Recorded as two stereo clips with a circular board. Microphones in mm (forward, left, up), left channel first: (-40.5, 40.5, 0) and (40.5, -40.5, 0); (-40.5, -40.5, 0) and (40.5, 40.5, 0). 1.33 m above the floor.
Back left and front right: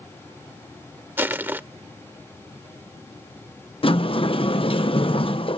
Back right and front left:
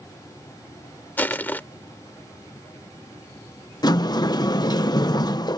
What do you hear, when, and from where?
1.2 s crushing: 85° right
3.8 s a sliding door: 170° left